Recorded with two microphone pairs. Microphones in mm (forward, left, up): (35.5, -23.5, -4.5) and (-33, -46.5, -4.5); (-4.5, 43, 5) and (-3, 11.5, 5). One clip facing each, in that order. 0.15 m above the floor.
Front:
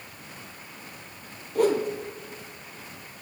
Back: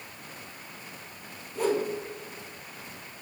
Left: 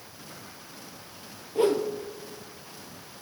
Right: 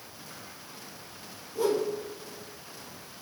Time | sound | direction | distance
1.6 | a whoosh | 50° left | 0.9 m